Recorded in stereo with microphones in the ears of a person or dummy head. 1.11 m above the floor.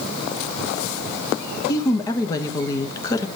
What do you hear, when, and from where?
1.7 s a woman speaking: 20° left (ahead or behind), 1.1 m